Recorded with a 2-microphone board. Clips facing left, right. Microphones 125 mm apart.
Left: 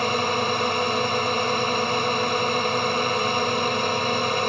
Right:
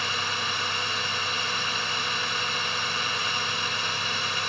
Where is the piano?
No piano in this recording.